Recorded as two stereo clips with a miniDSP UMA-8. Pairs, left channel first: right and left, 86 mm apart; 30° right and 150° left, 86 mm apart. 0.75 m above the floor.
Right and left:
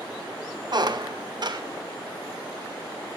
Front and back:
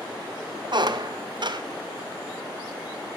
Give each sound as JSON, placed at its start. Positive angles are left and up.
{"t": 0.7, "sound": "a squeak", "azimuth_deg": 120, "distance_m": 0.6}